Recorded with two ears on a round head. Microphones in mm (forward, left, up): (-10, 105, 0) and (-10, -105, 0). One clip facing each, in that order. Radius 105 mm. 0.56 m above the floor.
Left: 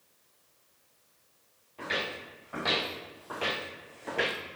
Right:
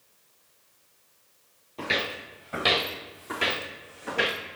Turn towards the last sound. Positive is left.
turn(degrees=5)  # may be behind; listen again after turning